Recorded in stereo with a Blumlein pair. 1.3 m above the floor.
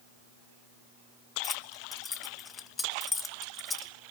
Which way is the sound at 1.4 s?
15° left.